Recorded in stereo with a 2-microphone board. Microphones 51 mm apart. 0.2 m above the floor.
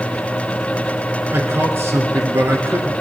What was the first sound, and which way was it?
A man speaking, 50° right (ahead or behind).